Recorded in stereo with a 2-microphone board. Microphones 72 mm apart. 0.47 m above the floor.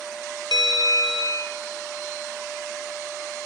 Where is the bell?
85° left, 3 m.